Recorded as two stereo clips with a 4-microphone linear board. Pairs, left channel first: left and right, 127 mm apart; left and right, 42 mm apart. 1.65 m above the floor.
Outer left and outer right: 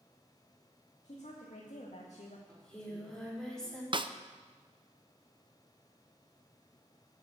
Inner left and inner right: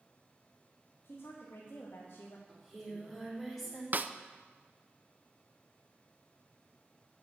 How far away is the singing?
About 4 m.